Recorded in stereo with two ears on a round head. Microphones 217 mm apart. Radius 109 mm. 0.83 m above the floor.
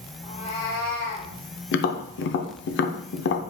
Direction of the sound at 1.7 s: 50° left (ahead or behind).